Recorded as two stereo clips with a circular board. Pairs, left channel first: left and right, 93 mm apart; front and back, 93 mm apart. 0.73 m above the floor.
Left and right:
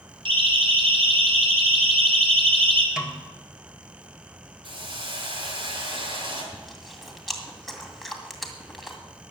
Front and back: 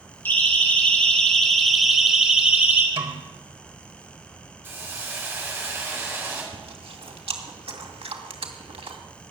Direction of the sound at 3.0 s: 170° right.